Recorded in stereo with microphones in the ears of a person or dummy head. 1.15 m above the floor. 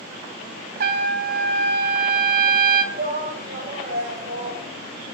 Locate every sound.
0.8 s a trumpet: 55° right (ahead or behind), 1.1 m
2.9 s a shout: 40° right (ahead or behind), 3.5 m